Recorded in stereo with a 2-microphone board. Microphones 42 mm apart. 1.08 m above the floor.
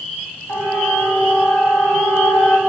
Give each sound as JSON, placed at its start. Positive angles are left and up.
{"t": 0.5, "sound": "a siren", "side_deg": 75, "distance_m": 9.0}